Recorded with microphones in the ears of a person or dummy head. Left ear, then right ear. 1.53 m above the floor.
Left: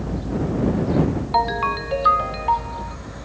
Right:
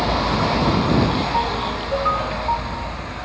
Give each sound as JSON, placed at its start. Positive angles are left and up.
{"t": 1.3, "sound": "a ringtone", "side_deg": 25}